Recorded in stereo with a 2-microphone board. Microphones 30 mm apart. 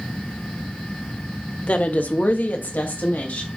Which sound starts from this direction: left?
A woman speaking, at 1.6 s.